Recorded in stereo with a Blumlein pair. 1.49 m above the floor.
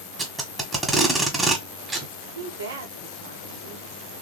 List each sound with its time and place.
0.2 s tape being pulled: 10° right, 1.6 m
2.4 s a woman speaking: 65° right, 1.3 m